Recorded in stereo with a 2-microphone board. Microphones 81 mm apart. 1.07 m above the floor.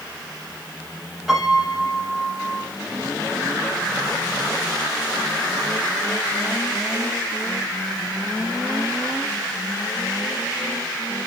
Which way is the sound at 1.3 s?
5° right (ahead or behind).